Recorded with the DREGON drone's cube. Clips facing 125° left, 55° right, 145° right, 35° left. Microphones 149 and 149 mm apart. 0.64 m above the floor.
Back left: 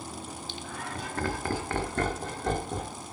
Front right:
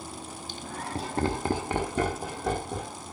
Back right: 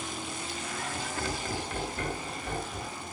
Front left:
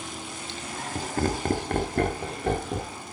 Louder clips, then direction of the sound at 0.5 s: Front right 5 dB, front left 5 dB; 25° right.